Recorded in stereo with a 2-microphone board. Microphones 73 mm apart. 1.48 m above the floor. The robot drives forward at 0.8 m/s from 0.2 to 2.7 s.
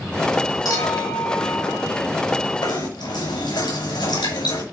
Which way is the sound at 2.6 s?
90° left.